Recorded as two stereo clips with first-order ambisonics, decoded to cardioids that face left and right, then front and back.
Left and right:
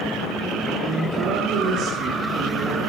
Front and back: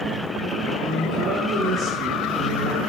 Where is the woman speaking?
115° right, 2.5 m.